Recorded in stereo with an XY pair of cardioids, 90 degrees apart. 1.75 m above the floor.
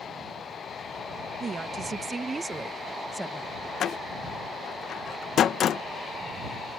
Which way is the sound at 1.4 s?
50° right.